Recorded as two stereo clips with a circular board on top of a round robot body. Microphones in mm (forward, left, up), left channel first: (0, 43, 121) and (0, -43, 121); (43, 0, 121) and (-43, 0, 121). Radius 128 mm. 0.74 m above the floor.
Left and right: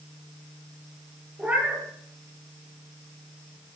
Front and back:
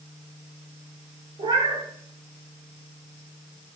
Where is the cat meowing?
165° right, 6.5 m.